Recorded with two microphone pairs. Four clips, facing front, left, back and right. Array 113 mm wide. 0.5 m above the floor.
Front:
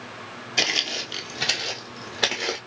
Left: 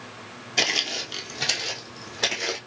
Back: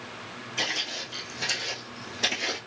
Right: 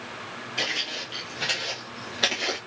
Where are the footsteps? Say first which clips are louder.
Left 5 dB, front 5 dB; 40° left, 0.7 m; by 2.6 s 20° right, 1.5 m.